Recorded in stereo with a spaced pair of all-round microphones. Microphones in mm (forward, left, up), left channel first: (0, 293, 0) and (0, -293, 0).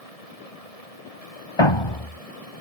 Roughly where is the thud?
Left.